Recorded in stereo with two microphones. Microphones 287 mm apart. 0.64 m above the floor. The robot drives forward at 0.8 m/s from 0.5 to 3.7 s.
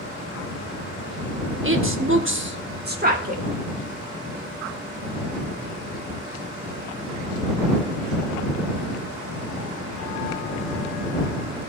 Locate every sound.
1.6 s a woman speaking: 45° right (ahead or behind), 1.0 m; by 3.4 s 25° right (ahead or behind), 1.6 m